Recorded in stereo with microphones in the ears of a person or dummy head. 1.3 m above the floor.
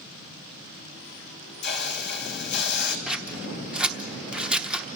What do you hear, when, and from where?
1.6 s a hiss: 60° left (ahead or behind), 2.5 m
3.1 s scissors: 5° right (ahead or behind), 0.8 m